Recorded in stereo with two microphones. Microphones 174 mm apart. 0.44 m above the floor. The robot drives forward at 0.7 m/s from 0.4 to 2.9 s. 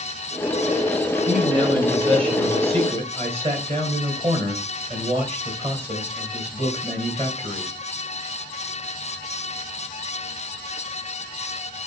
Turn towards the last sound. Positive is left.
turn(degrees=-40)  # may be behind; listen again after turning